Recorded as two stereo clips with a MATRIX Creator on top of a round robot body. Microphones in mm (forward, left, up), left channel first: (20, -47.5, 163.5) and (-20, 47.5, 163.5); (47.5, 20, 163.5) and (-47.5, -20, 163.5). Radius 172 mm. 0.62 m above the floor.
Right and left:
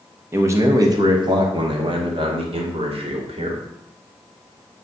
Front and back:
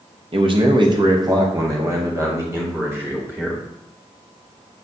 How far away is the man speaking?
About 1.4 m.